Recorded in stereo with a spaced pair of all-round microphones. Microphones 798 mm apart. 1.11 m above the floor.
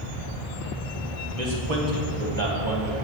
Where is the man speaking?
60° right (ahead or behind), 1.3 m; by 3.0 s 20° right (ahead or behind), 1.4 m.